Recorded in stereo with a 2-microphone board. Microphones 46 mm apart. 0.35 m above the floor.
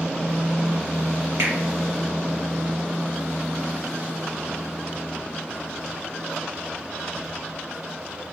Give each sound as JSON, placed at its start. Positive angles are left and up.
{"t": 1.4, "sound": "a finger snap", "side_deg": -75, "distance_m": 5.0}